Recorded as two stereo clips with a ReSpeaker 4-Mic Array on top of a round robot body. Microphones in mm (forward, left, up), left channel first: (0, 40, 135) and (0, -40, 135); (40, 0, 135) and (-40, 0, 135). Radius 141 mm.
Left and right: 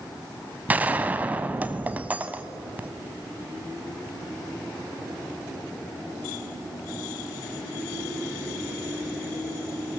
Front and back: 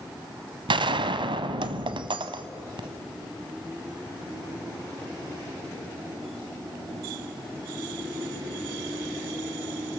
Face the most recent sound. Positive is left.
turn(degrees=-160)